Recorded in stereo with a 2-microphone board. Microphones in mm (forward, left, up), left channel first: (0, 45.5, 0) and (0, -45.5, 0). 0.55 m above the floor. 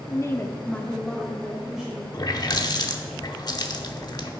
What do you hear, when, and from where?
0.1 s a woman speaking: 30° left (ahead or behind), 1.1 m; by 2.0 s 10° right (ahead or behind), 2 m
2.1 s a running tap: 50° left (ahead or behind), 0.8 m